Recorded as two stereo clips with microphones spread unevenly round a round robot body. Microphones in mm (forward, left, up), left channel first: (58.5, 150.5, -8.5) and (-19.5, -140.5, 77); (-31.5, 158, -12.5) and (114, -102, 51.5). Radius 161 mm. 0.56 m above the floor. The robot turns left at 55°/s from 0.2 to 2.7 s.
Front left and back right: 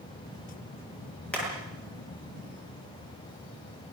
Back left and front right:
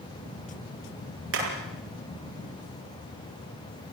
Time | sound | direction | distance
1.3 | hammering | 10° right | 7.5 m